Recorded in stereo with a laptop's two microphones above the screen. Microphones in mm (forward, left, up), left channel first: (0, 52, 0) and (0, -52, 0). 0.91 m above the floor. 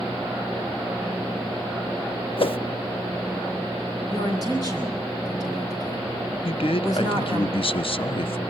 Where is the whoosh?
60° left (ahead or behind), 0.5 m.